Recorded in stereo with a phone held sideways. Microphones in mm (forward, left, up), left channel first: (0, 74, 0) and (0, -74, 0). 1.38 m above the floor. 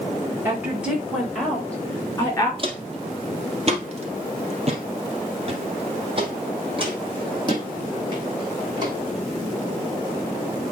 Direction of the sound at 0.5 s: 15° right (ahead or behind).